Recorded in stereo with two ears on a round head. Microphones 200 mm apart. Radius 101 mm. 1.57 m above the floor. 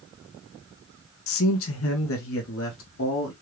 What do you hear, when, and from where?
1.3 s a man speaking: 65° left (ahead or behind), 0.6 m; by 3.3 s 60° left (ahead or behind), 1.5 m